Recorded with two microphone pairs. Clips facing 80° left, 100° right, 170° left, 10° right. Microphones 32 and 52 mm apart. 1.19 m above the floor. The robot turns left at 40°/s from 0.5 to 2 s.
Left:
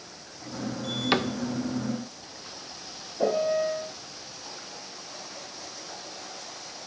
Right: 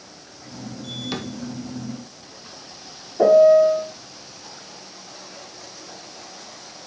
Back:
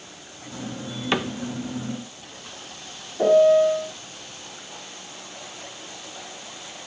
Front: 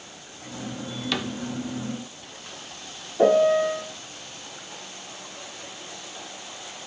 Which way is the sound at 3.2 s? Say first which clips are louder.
Right 13 dB, back 3 dB; 75° right.